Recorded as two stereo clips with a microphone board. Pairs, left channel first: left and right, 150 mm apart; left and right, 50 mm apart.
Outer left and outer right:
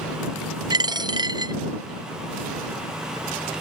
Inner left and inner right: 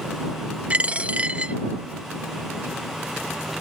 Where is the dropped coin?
30° right (ahead or behind).